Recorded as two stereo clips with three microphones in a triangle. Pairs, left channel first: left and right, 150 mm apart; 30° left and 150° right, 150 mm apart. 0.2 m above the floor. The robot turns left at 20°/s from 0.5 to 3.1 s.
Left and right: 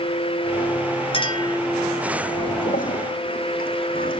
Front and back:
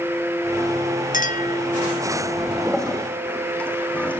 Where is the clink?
40° left, 2 m; by 1.6 s 30° left, 2 m.